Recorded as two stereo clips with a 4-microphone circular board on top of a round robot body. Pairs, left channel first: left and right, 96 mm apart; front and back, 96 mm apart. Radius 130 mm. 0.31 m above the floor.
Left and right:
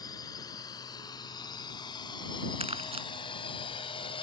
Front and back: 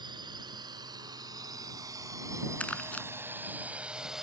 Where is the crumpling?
75° right.